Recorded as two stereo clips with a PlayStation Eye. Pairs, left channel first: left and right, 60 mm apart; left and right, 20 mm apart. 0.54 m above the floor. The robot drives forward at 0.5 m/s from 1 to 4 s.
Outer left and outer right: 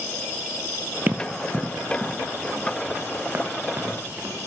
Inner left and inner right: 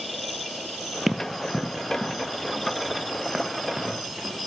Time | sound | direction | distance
1.1 | running footsteps | 30° right (ahead or behind) | 0.6 m